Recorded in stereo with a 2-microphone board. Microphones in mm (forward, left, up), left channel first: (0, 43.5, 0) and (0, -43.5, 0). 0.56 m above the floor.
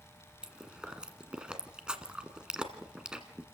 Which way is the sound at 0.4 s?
10° right (ahead or behind).